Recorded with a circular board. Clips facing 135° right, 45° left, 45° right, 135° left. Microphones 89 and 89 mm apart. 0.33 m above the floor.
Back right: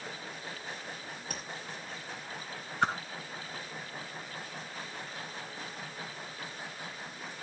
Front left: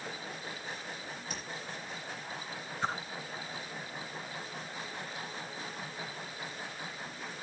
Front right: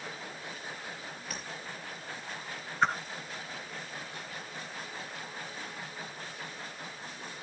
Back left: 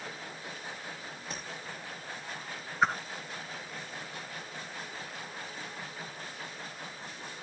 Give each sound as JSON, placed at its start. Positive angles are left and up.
{"t": 1.3, "sound": "tapping", "azimuth_deg": -165, "distance_m": 5.5}
{"t": 2.8, "sound": "a whoosh", "azimuth_deg": -140, "distance_m": 1.5}